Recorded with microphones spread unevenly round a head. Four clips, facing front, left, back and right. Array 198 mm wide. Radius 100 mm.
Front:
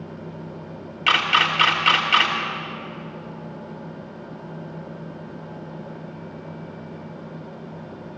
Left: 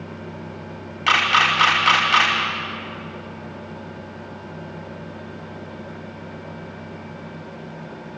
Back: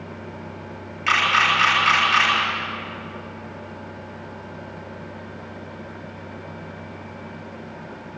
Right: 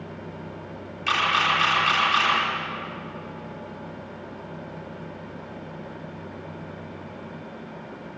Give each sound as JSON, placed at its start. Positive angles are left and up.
{"t": 1.1, "sound": "a camera shutter", "azimuth_deg": 45, "distance_m": 3.5}